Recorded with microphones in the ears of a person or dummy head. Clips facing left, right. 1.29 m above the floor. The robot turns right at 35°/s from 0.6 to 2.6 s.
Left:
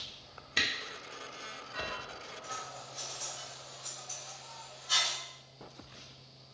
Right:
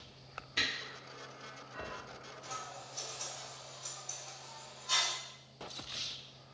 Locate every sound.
0.6 s a camera shutter: 65° left (ahead or behind), 0.8 m; by 0.7 s 60° left (ahead or behind), 0.8 m
2.4 s scissors: 55° right (ahead or behind), 1.3 m; by 5.2 s 60° right (ahead or behind), 1.3 m